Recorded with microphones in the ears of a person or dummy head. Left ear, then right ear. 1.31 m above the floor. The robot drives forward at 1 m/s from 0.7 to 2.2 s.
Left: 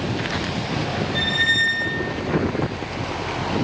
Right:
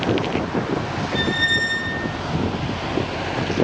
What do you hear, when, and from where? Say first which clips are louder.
1.1 s a squeak: left 1 dB; centre (ahead or behind), 0.7 m